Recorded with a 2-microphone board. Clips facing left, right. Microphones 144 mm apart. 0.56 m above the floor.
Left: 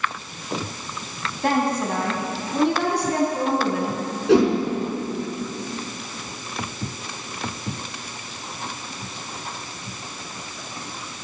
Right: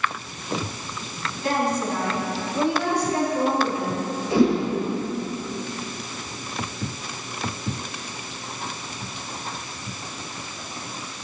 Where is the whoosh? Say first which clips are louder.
Left 3 dB; 80° left, 6 m.